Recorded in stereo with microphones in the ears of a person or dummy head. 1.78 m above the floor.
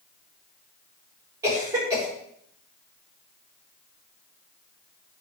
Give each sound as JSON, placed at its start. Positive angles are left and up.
{"t": 1.4, "sound": "a cough", "side_deg": -15, "distance_m": 6.0}